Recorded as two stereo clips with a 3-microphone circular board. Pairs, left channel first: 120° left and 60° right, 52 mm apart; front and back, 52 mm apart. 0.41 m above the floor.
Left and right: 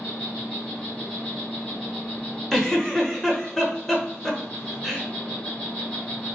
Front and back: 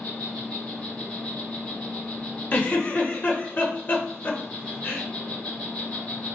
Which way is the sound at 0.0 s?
60° left.